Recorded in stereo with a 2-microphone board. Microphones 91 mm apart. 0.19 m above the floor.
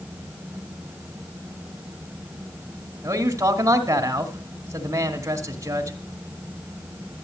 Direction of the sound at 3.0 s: 35° right (ahead or behind).